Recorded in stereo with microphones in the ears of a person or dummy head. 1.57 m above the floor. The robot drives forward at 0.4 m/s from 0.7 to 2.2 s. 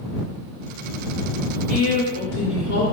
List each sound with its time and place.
1.7 s a woman speaking: 85° left, 1.7 m